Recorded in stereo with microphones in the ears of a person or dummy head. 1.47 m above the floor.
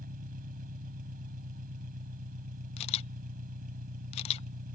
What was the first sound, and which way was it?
An engine running, 45° right (ahead or behind).